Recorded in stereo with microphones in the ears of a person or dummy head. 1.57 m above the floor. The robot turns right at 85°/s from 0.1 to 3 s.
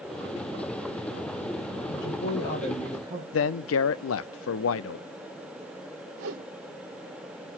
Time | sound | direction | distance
1.9 | a woman speaking | 110° left | 2.0 m
3.3 | a man speaking | 65° left (ahead or behind) | 0.5 m
6.2 | a whoosh | 55° right (ahead or behind) | 1.0 m